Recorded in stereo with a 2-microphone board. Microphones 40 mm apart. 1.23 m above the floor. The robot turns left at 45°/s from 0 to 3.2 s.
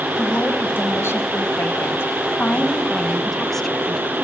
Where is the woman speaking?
145° left, 0.9 m; by 4.2 s 10° left, 0.9 m.